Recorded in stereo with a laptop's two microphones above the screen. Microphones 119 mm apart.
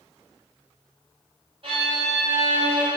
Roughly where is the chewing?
I don't hear chewing.